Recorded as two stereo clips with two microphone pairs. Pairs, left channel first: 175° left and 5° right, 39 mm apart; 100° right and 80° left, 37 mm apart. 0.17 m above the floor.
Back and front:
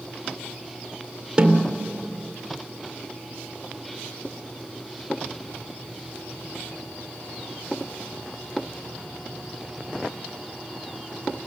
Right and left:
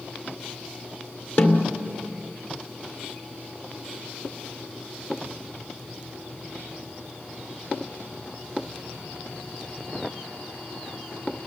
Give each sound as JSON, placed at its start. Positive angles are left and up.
{"t": 1.4, "sound": "a snare drum", "azimuth_deg": -75, "distance_m": 2.0}